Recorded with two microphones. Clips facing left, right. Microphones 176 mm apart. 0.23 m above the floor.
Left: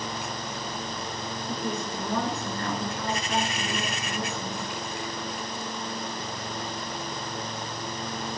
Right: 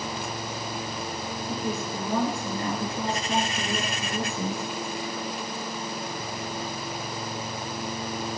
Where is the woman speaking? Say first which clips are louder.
Right 1 dB; centre (ahead or behind), 3.5 m; by 4.7 s 40° right (ahead or behind), 3.5 m.